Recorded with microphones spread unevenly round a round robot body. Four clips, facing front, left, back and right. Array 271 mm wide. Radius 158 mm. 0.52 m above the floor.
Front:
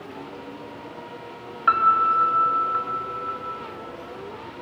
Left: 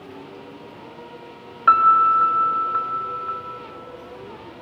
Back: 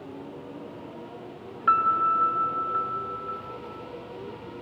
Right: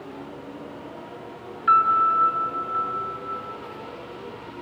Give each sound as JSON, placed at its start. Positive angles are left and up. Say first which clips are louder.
{"t": 1.7, "sound": "a piano", "louder": "left 4 dB, front 3 dB", "azimuth_deg": 65, "distance_m": 1.0}